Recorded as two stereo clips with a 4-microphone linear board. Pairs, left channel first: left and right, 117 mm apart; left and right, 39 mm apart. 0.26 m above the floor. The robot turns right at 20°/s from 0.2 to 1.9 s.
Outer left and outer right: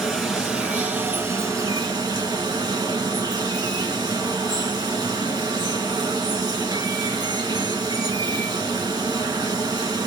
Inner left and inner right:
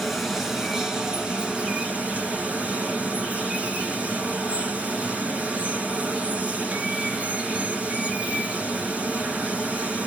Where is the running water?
Straight behind, 2 m; by 10.1 s 145° right, 2 m.